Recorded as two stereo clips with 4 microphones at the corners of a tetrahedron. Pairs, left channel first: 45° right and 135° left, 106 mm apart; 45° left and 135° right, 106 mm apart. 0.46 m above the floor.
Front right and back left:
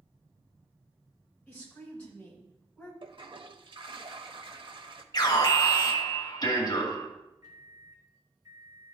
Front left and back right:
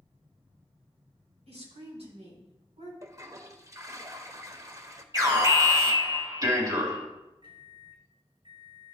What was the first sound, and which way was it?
A woman speaking, 125° right.